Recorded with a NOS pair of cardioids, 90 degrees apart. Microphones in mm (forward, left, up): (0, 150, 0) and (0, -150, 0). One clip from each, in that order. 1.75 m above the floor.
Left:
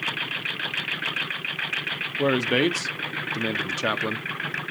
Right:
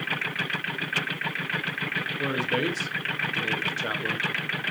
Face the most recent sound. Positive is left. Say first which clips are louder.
# left 7 dB
turn(degrees=50)